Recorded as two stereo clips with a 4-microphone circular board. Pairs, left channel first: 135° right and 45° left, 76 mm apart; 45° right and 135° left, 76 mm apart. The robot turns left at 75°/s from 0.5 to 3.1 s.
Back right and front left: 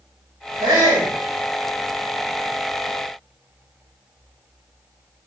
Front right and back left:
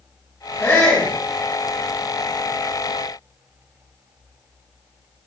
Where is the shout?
30° left, 4.5 m; by 1.1 s 10° right, 4.5 m.